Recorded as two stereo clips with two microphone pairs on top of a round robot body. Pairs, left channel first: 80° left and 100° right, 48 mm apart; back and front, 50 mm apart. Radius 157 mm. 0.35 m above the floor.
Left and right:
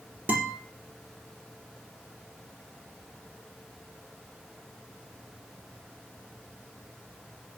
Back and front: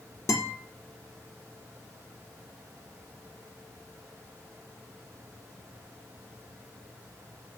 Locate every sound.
0.3 s a guitar: 165° right, 3.5 m